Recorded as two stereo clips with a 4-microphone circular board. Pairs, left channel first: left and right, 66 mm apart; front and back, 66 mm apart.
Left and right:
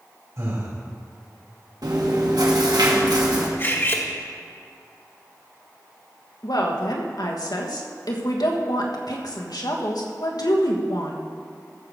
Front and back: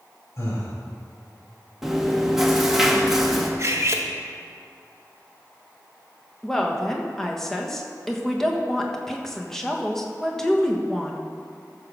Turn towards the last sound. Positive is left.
turn(degrees=85)